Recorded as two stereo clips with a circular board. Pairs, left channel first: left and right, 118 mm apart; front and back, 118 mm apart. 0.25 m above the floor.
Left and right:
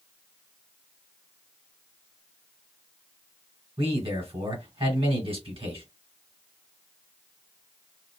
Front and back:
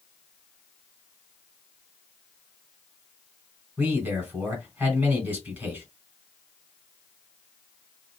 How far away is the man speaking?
About 2 m.